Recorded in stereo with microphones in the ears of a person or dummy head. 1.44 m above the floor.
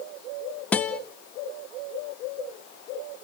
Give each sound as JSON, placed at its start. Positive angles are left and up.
{"t": 0.7, "sound": "a guitar", "side_deg": 10, "distance_m": 0.8}